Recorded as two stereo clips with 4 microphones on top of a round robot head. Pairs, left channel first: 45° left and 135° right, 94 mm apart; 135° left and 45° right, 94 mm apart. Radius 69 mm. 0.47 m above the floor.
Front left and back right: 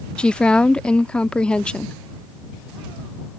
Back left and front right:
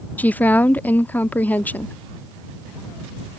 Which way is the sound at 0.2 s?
105° left.